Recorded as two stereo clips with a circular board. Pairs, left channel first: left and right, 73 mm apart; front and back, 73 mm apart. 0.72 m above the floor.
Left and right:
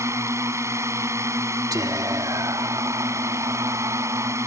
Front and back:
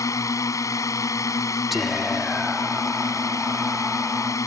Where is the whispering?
90° right.